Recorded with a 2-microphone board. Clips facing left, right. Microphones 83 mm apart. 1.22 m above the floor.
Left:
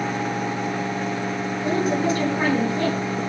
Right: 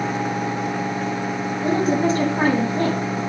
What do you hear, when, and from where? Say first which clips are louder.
1.6 s a woman speaking: right 3 dB; 30° right (ahead or behind), 9.5 m